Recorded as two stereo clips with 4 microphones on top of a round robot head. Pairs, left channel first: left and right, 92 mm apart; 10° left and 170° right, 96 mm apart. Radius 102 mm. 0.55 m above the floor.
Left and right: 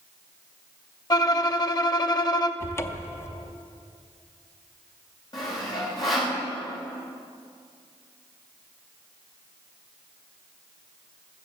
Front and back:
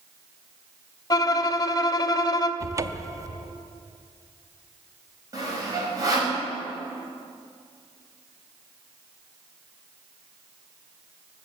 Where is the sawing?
140° left, 3.5 m.